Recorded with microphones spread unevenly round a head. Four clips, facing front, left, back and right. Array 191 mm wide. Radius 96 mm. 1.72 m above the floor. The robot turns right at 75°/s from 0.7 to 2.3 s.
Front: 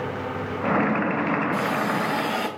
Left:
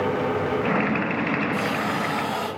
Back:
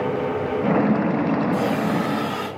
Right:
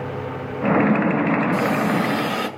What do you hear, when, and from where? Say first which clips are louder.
1.5 s a hiss: right 5 dB, back 3 dB; 140° right, 8.5 m; by 2.5 s 80° right, 8.5 m